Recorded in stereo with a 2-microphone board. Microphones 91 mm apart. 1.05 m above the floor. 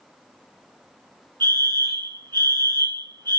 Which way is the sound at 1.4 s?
50° right (ahead or behind).